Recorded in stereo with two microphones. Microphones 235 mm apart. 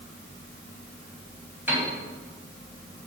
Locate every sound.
1.7 s a piano: 10° right (ahead or behind), 2.5 m